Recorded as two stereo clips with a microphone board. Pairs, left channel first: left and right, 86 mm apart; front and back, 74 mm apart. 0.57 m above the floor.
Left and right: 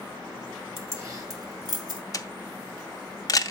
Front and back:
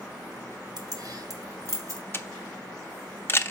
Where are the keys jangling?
150° right, 1.2 m; by 2.0 s 130° right, 2 m.